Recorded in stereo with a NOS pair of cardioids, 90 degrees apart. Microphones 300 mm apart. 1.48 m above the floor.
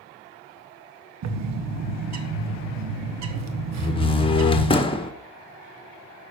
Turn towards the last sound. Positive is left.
turn(degrees=20)